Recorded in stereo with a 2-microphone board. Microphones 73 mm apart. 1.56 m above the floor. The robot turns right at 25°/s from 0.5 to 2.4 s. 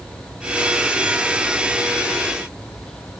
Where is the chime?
No chime in this recording.